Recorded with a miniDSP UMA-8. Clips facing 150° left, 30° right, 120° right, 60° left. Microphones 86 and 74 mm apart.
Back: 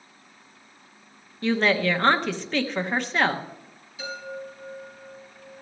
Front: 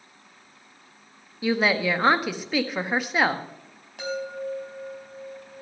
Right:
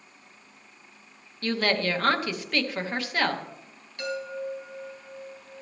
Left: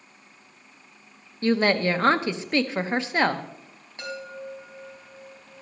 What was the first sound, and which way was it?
A woman speaking, 40° left.